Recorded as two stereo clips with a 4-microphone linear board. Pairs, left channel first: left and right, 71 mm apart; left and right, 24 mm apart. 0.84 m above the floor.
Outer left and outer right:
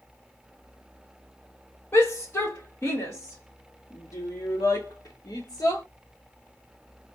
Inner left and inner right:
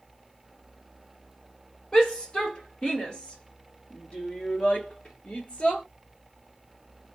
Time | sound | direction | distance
1.9 | a shout | 35° left (ahead or behind) | 3 m